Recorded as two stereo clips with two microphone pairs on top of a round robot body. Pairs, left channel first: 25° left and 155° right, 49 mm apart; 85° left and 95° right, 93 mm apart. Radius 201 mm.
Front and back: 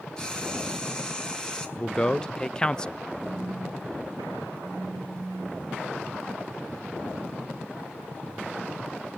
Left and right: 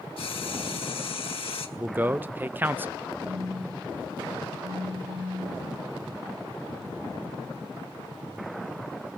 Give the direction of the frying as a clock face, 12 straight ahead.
9 o'clock.